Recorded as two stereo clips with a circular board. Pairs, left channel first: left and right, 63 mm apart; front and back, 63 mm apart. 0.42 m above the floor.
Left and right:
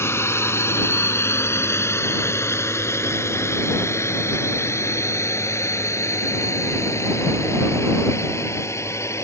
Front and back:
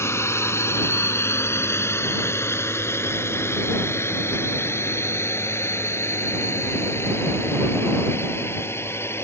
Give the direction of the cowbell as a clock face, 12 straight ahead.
I don't hear a cowbell.